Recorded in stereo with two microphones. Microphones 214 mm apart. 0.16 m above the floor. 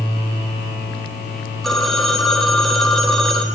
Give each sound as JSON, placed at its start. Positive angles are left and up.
{"t": 1.6, "sound": "a phone ringing", "side_deg": 0, "distance_m": 3.0}